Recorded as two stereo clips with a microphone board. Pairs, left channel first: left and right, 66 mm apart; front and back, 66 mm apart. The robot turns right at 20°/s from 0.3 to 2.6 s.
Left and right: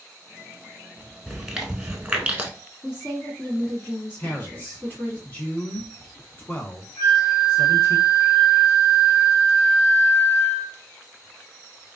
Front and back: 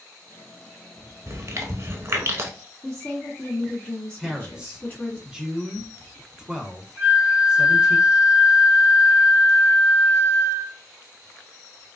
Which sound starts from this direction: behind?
Chewing, at 1.3 s.